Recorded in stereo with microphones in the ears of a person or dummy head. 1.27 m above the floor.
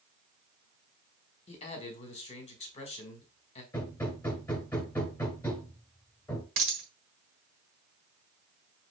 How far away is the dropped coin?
About 1.5 m.